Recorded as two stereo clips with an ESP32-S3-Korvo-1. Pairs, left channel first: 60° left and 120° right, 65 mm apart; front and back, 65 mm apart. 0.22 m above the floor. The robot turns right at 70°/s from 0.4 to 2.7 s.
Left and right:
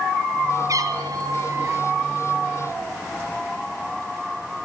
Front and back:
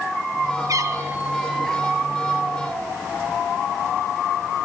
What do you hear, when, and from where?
0.7 s a cat meowing: 150° right, 2.5 m; by 1.8 s 70° right, 2.5 m